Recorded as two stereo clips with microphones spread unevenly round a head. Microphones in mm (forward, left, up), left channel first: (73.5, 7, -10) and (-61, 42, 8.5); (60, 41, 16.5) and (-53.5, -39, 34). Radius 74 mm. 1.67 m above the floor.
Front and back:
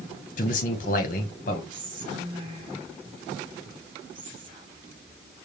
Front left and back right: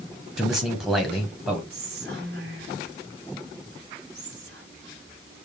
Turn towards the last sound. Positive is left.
turn(degrees=-135)